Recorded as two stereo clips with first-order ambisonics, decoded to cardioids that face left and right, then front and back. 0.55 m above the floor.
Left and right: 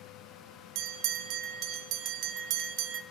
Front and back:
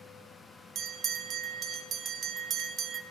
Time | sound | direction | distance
0.8 | a bell | 120° right | 0.5 m